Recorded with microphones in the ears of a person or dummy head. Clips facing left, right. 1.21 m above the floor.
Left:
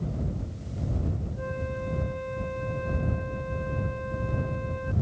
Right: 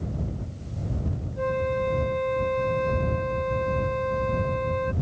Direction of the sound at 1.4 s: 80° right.